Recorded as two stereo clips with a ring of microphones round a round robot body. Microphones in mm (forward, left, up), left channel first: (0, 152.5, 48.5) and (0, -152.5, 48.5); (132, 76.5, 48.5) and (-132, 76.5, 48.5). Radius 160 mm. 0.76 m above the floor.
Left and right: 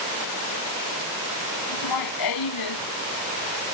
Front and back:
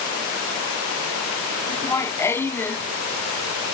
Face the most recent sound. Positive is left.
turn(degrees=85)